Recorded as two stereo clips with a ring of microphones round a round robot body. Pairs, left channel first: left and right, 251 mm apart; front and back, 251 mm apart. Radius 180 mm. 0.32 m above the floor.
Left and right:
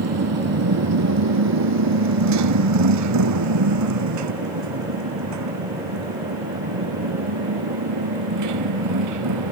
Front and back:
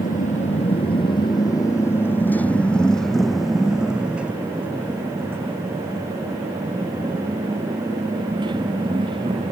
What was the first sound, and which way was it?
A motorcycle, 70° right.